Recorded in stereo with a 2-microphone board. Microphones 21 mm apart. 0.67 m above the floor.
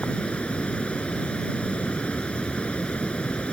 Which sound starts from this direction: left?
Running water, at 0.0 s.